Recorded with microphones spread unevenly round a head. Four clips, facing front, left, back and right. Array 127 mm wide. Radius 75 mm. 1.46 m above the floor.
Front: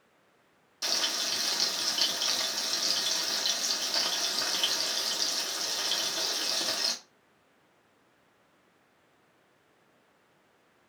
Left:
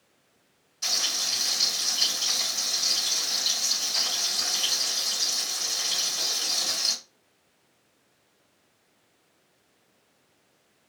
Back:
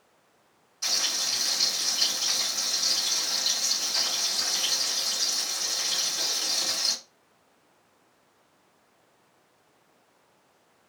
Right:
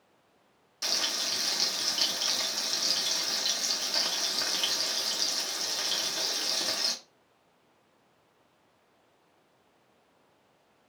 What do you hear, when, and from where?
0.8 s frying: 50° right, 0.7 m